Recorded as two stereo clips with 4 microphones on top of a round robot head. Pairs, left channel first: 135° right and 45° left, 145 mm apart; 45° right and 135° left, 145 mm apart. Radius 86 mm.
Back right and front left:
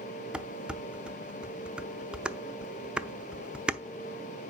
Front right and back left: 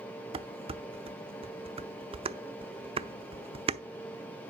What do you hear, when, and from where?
0.3 s dishes clattering: 125° left, 0.7 m